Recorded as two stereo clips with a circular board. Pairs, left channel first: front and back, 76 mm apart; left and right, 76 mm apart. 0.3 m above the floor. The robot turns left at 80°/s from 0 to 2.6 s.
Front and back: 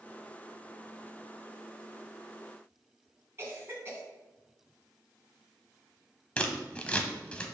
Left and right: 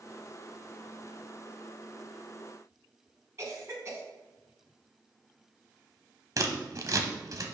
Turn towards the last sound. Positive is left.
turn(degrees=-70)